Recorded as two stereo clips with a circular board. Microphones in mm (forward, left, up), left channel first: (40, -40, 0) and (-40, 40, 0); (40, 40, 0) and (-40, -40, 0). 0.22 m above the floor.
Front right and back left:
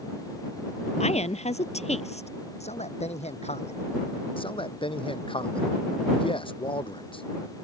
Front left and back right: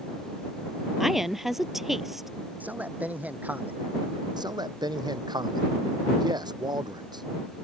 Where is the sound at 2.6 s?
60° right.